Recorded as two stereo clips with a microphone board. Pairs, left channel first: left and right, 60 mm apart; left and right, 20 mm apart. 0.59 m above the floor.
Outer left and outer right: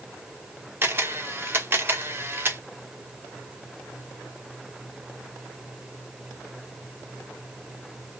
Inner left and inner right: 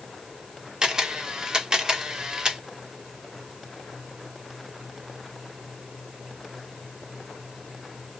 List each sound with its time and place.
0.8 s a camera shutter: 40° right (ahead or behind), 0.8 m